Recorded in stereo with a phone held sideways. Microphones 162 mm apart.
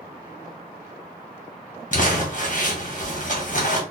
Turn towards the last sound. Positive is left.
turn(degrees=55)  # may be behind; listen again after turning